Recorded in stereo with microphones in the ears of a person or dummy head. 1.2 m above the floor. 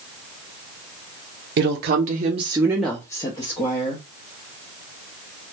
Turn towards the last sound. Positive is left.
turn(degrees=40)  # may be behind; listen again after turning